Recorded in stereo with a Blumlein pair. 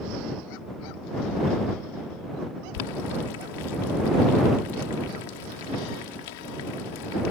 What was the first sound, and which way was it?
Boiling, 50° left.